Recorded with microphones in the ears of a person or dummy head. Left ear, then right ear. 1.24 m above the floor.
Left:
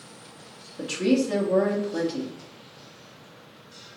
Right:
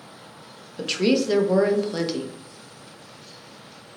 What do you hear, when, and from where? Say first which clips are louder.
0.8 s a woman speaking: right 2 dB; 45° right (ahead or behind), 0.7 m